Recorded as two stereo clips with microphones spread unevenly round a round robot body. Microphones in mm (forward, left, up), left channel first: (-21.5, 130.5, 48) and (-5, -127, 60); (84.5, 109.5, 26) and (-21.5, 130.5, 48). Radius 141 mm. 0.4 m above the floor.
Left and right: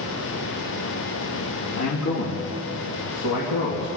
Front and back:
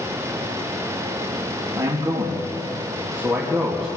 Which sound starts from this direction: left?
A man speaking, at 1.8 s.